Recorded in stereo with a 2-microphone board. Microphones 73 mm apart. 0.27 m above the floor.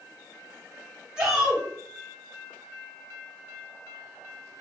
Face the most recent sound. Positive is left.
turn(degrees=-15)  # may be behind; listen again after turning